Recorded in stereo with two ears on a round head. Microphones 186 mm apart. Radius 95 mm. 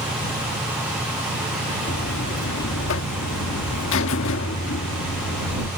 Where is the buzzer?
75° left (ahead or behind).